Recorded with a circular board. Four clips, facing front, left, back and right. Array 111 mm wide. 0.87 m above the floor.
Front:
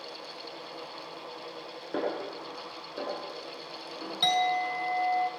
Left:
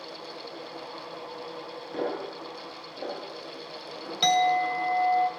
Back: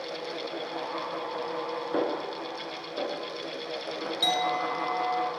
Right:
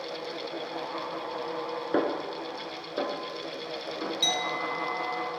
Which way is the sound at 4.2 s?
75° left.